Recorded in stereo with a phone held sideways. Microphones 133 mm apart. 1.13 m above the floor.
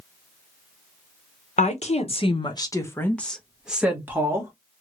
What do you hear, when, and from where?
1.6 s a woman speaking: 65° left (ahead or behind), 1.0 m; by 4.5 s 20° right (ahead or behind), 1.3 m